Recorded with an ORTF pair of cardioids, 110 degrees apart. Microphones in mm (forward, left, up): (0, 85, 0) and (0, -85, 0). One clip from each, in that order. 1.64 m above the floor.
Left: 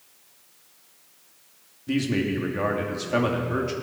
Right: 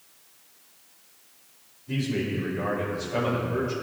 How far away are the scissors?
I don't hear scissors.